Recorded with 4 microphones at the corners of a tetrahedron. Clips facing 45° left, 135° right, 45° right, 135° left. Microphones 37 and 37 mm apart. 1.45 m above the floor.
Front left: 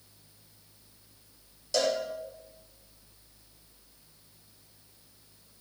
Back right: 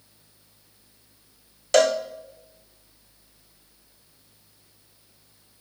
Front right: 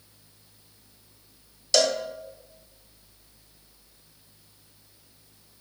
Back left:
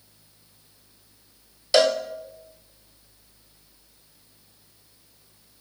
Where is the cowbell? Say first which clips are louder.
Back right 9 dB, back left 4 dB; 155° right, 0.8 m.